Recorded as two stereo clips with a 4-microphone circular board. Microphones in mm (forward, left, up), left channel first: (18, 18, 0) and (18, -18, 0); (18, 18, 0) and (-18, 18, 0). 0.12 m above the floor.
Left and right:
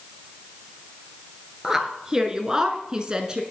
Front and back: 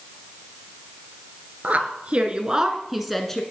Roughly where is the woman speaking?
Behind.